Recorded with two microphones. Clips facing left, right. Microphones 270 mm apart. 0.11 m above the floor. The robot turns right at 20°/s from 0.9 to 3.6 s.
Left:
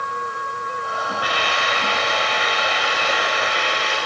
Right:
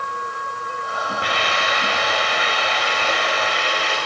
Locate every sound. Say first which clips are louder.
1.2 s a hiss: right 1 dB; 25° right, 10 m; by 4.0 s 20° left, 10 m